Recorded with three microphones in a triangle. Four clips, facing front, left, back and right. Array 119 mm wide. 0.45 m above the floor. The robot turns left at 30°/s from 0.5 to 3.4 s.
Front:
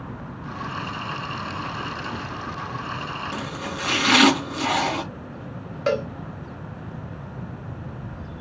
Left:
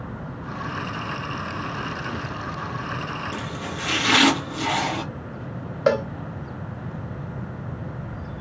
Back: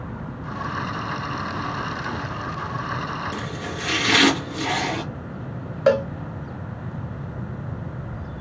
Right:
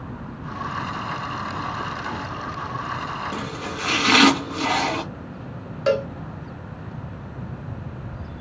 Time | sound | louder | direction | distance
3.3 | chopping | right 1 dB, even | 45° right | 1.4 m
5.9 | a cowbell | left 1 dB, back 5 dB | 145° left | 1.1 m